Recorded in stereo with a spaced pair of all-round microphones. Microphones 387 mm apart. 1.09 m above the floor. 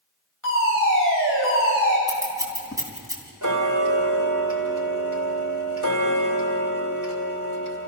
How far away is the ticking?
About 2.5 m.